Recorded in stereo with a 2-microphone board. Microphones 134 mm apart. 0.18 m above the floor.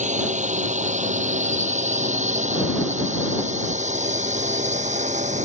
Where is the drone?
65° right (ahead or behind); by 5.5 s 60° right (ahead or behind).